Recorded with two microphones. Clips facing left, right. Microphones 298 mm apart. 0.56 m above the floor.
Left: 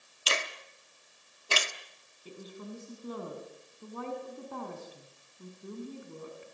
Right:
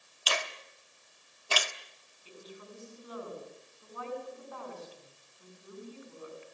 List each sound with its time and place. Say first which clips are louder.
0.3 s a finger snap: even; 25° left (ahead or behind), 1.1 m
2.2 s a woman speaking: left 5 dB; 50° left (ahead or behind), 6 m